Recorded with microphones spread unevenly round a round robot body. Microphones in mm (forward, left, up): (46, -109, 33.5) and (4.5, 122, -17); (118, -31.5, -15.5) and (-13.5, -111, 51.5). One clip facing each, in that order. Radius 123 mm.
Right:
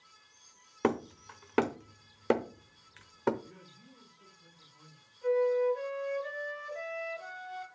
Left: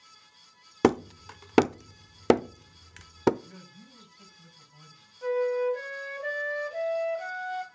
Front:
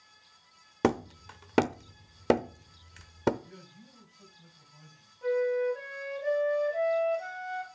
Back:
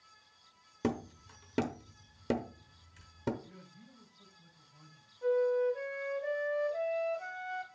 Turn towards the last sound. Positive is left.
turn(degrees=115)